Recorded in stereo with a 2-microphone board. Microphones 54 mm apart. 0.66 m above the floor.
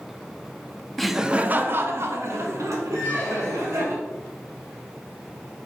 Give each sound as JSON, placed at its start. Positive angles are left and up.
{"t": 1.0, "sound": "laughter", "side_deg": 5, "distance_m": 0.6}
{"t": 2.9, "sound": "a squeak", "side_deg": 40, "distance_m": 2.5}